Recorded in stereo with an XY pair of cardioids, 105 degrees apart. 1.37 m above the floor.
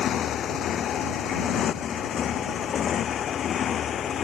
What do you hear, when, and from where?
0.0 s a motorcycle: 60° left; by 4.3 s 55° left